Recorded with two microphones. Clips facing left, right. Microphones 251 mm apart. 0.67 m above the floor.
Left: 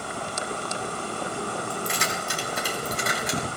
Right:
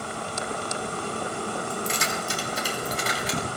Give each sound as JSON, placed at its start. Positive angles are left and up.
{"t": 1.7, "sound": "keys jangling", "side_deg": 80, "distance_m": 4.0}